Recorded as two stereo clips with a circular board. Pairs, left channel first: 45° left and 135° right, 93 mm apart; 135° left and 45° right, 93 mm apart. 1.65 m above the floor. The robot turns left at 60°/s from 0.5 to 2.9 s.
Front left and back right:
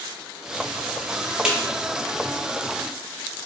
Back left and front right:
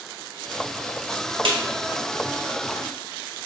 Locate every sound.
1.4 s a snare drum: 55° right, 0.5 m; by 1.6 s 65° right, 0.5 m